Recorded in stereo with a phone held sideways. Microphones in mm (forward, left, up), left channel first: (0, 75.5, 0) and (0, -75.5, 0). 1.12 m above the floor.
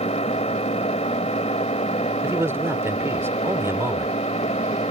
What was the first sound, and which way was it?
An engine running, 45° left (ahead or behind).